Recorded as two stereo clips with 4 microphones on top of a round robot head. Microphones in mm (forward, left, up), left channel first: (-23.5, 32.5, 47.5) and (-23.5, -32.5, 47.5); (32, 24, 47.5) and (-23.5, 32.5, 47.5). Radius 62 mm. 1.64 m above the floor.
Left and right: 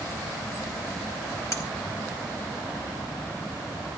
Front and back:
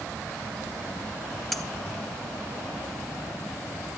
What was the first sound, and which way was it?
Cutlery clinking, 75° left.